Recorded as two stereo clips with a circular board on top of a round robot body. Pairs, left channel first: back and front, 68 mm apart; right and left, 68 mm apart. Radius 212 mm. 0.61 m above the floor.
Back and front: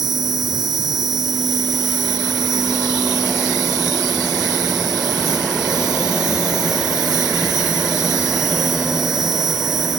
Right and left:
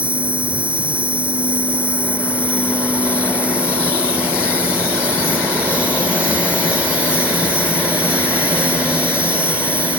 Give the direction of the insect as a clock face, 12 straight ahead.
11 o'clock.